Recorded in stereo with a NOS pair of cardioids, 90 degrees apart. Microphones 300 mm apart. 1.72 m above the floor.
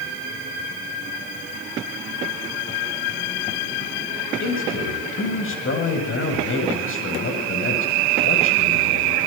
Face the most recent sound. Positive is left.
turn(degrees=45)